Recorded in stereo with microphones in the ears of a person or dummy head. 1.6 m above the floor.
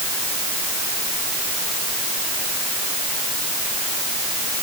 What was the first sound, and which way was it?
Only background noise.